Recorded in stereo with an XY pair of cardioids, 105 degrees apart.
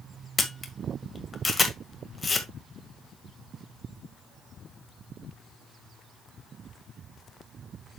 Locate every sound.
0.4 s a camera shutter: 30° left, 1.7 m